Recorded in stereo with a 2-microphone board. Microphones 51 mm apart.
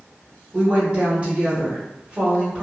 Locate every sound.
0.5 s a woman speaking: 30° right (ahead or behind), 1.8 m